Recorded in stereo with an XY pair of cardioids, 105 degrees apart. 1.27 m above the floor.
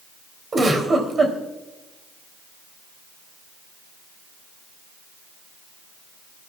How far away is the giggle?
About 3.5 m.